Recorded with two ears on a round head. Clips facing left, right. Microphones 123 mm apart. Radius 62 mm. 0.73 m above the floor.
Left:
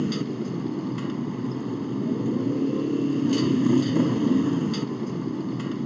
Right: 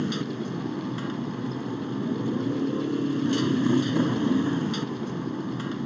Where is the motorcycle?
10° left (ahead or behind).